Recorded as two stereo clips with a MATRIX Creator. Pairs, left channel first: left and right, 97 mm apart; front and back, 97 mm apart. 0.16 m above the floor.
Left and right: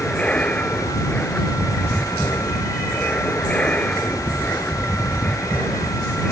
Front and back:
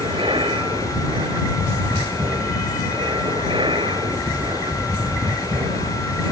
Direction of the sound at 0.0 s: 165° left.